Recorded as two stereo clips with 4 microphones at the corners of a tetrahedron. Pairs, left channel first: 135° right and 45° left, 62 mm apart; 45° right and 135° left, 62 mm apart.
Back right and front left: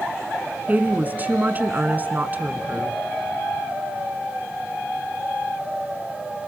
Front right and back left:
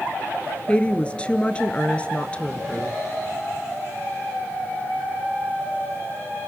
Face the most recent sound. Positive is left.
turn(degrees=10)